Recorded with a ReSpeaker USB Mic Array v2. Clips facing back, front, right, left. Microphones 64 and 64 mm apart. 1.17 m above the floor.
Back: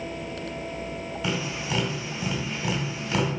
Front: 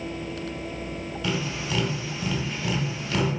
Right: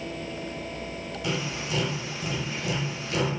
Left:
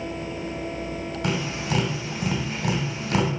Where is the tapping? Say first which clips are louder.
Front 1 dB, left 3 dB; 100° left, 3 m.